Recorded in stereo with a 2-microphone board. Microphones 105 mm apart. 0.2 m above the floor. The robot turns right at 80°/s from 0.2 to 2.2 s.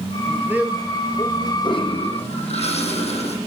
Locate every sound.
0.3 s a man speaking: 40° right, 5 m; by 1.5 s 60° left, 5 m
1.6 s a toilet flushing: 45° left, 10 m; by 3.4 s 90° left, 10 m